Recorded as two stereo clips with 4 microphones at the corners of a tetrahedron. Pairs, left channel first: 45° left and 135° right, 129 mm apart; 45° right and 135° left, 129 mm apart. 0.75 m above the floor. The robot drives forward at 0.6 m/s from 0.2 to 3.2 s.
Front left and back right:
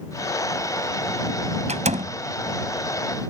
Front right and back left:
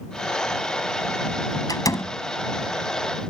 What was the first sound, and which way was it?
A door slam, 105° right.